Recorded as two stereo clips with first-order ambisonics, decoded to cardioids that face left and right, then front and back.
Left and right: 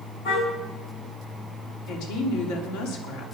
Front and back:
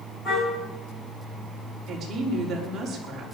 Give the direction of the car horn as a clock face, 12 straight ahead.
10 o'clock.